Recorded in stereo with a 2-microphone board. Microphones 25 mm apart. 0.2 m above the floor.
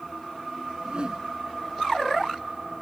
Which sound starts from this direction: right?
A whoosh, at 0.8 s.